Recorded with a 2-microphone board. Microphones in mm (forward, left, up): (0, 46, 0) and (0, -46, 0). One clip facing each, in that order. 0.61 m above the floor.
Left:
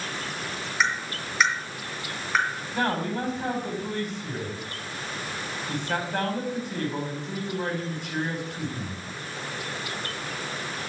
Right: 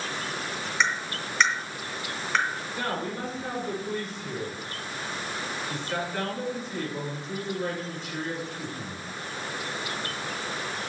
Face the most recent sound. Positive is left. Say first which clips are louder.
# left 7 dB
turn(degrees=60)  # may be behind; listen again after turning